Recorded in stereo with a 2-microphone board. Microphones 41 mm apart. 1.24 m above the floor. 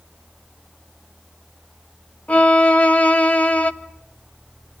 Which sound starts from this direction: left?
A violin, at 2.3 s.